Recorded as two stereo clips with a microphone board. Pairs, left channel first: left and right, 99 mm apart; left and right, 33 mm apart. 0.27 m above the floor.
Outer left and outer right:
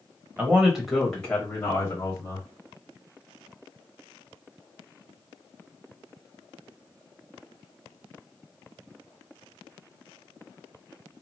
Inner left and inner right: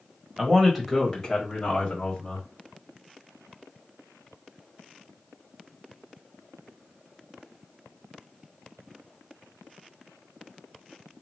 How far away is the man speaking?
About 1.1 m.